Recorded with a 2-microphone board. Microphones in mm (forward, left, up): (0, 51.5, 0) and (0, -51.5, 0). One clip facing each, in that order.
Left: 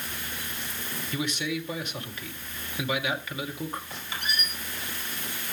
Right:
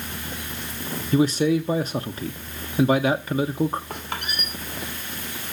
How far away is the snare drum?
No snare drum in this recording.